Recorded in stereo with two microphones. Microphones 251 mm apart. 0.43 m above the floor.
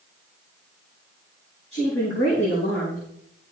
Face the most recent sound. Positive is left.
turn(degrees=55)  # may be behind; listen again after turning